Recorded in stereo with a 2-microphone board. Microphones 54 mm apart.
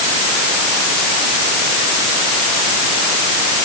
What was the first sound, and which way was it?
Only background noise.